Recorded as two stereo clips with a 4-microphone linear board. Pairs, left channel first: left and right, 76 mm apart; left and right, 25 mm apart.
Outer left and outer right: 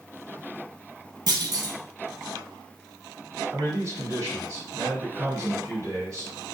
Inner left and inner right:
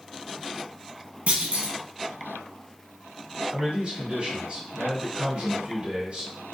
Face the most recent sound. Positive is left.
turn(degrees=-40)  # may be behind; listen again after turning